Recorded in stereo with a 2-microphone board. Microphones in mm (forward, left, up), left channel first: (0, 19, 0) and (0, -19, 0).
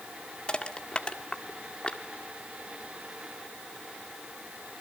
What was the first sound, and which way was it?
Crushing, 25° left (ahead or behind).